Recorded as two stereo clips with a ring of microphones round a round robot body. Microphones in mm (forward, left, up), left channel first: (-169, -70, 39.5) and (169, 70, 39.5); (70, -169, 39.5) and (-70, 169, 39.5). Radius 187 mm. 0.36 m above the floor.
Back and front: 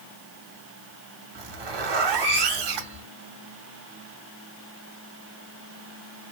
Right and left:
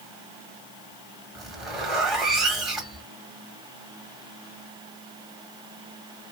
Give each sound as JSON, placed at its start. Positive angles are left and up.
{"t": 1.4, "sound": "a zipper", "azimuth_deg": 25, "distance_m": 1.8}